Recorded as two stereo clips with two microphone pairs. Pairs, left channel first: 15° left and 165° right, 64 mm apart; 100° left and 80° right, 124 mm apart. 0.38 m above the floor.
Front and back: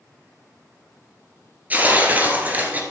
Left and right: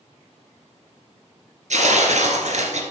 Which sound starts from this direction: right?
Tearing paper, at 1.7 s.